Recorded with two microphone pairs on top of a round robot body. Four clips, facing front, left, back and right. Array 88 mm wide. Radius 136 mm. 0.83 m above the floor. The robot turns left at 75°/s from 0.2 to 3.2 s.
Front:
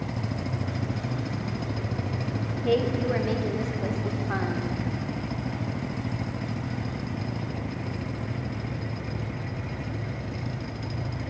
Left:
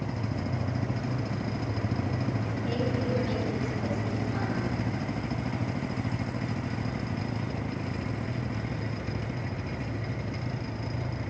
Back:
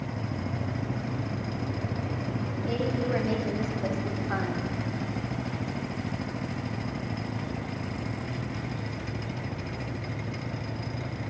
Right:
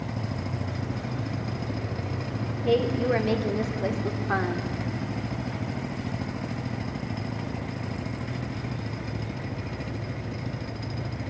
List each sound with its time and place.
2.6 s a woman speaking: 40° right, 3 m; by 4.7 s 80° right, 3 m